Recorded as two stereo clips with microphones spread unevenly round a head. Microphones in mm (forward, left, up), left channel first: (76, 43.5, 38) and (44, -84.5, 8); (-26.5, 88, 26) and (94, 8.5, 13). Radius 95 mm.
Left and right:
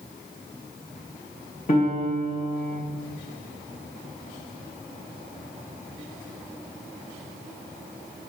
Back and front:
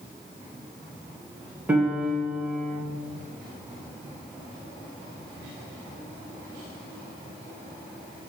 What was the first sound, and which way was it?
A piano, 45° left.